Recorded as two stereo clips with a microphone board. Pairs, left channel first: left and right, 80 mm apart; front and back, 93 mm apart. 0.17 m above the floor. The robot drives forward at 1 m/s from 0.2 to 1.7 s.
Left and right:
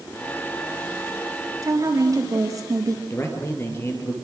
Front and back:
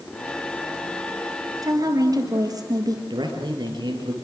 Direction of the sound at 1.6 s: 135° right.